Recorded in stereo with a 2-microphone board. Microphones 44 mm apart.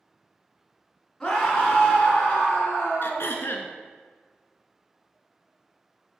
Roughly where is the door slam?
No door slam in this recording.